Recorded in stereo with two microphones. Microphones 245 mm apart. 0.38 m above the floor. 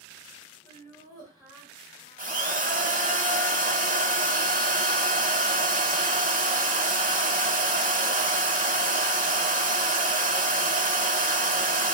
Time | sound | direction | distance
0.6 | laughter | 15° right (ahead or behind) | 1.9 m
2.2 | a drill | 30° right (ahead or behind) | 0.7 m